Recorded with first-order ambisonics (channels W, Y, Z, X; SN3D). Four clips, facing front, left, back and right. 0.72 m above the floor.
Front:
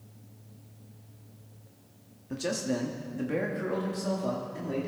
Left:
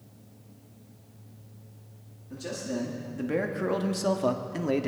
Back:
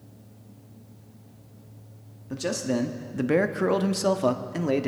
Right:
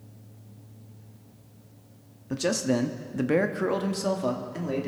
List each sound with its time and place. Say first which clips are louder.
2.3 s a man speaking: right 8 dB, back 3 dB; 100° right, 1.0 m; by 4.9 s 155° left, 1.3 m